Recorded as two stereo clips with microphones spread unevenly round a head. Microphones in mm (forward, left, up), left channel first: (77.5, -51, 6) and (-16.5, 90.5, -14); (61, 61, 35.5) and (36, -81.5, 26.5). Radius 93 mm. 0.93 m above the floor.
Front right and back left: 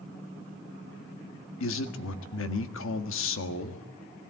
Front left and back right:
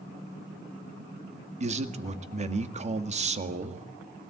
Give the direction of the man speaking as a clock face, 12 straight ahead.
2 o'clock.